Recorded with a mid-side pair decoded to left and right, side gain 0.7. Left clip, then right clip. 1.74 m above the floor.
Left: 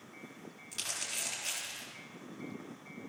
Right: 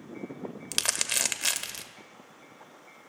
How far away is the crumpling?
About 0.6 m.